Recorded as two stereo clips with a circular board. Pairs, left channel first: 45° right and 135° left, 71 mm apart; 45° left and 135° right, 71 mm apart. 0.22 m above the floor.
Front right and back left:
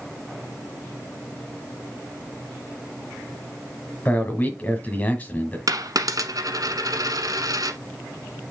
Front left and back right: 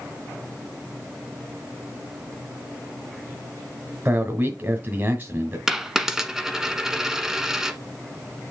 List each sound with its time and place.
4.0 s a man speaking: 100° right, 1.4 m
5.7 s a dropped coin: 140° left, 1.1 m